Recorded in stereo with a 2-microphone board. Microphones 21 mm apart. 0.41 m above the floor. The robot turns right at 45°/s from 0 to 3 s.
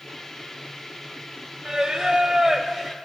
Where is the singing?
95° right, 1.3 m; by 3.0 s 40° right, 1.3 m.